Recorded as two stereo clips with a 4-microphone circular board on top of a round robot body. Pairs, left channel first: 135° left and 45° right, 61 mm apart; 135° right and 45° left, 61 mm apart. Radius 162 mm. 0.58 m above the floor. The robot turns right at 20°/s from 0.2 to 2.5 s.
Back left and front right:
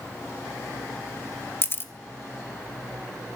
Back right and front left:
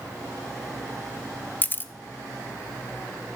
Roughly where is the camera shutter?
Behind.